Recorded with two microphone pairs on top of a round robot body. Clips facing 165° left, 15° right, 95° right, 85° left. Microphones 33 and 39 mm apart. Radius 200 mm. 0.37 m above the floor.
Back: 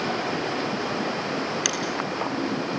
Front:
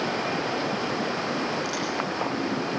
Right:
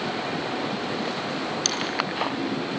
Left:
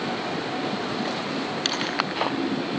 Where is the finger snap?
145° left, 5.5 m.